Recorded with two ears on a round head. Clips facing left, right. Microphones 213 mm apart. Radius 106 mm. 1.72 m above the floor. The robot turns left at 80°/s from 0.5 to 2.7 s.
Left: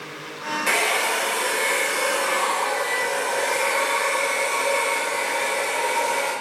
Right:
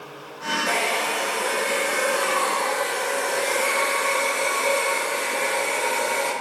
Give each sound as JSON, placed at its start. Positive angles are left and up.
{"t": 0.7, "sound": "a hair dryer", "azimuth_deg": 130, "distance_m": 1.8}